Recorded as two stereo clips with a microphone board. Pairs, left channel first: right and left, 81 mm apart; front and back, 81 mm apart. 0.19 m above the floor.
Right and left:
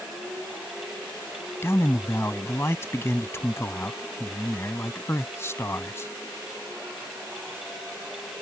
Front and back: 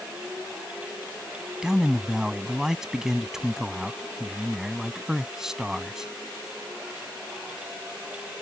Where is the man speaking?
100° right.